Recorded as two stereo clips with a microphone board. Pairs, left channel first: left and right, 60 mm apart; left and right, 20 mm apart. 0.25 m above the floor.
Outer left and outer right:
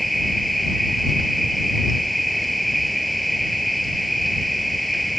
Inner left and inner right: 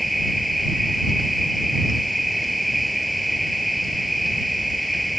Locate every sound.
0.0 s an insect: centre (ahead or behind)